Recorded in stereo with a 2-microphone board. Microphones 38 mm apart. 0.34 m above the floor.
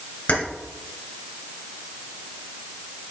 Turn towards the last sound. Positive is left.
turn(degrees=55)  # may be behind; listen again after turning